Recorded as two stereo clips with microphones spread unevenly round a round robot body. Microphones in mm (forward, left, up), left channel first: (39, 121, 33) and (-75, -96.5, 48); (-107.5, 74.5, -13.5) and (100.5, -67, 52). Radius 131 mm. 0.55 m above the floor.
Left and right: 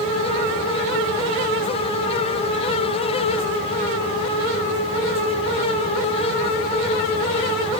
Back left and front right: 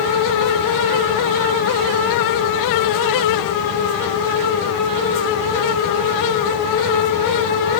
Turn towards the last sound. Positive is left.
No sound to turn to.